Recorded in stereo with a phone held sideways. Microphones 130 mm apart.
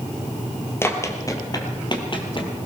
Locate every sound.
0.8 s running footsteps: 20° left (ahead or behind), 1.9 m; by 2.6 s 45° left (ahead or behind), 2 m